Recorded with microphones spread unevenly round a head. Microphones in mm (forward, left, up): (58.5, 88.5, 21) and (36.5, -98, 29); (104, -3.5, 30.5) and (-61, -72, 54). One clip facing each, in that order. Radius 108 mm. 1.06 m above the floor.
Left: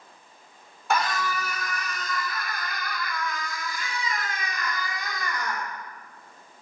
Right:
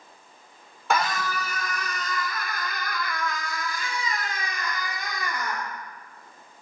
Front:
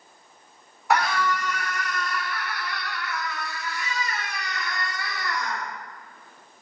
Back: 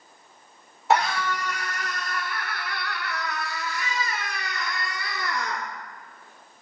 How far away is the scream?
About 4.5 m.